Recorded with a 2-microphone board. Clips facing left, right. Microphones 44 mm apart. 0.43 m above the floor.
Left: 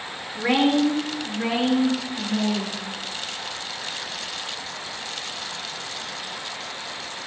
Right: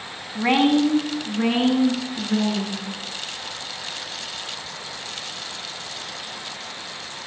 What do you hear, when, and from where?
0.3 s a woman speaking: 35° right (ahead or behind), 4 m; by 2.8 s 55° right (ahead or behind), 7.5 m